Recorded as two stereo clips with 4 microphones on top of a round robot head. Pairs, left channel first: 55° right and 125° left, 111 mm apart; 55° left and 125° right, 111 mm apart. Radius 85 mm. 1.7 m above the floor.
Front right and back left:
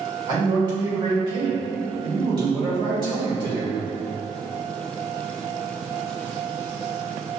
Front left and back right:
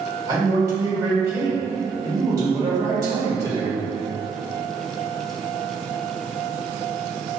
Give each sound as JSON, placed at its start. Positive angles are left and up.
{"t": 0.3, "sound": "a man speaking", "azimuth_deg": 175, "distance_m": 1.9}